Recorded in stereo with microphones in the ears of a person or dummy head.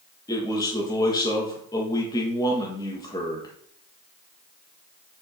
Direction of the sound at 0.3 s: 20° left (ahead or behind).